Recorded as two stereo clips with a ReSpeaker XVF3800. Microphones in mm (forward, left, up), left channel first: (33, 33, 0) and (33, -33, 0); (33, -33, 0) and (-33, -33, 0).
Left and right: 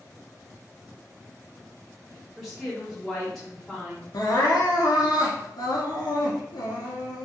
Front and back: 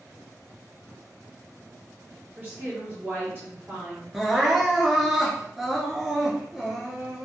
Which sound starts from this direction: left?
Crying, at 4.1 s.